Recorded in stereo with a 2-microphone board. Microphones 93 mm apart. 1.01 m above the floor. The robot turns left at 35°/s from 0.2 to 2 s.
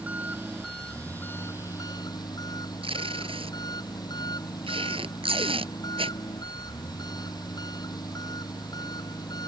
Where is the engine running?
165° right; by 9.5 s 135° left.